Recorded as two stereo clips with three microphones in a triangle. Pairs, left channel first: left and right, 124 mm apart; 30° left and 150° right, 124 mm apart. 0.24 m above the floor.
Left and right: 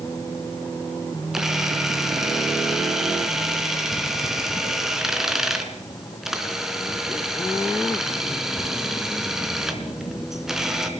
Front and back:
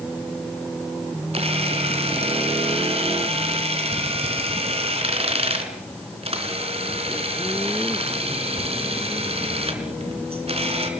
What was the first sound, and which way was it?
A camera shutter, 175° right.